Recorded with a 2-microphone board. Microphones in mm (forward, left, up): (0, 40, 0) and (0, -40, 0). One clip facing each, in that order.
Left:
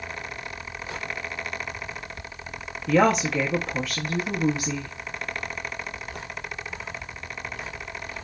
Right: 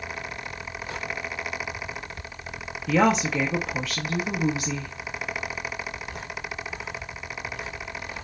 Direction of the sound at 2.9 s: 5° left (ahead or behind).